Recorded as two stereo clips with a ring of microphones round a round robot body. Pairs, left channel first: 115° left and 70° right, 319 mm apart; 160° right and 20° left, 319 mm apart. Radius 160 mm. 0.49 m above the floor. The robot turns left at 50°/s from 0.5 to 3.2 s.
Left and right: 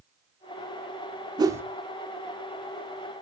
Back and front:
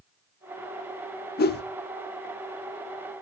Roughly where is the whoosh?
Behind right.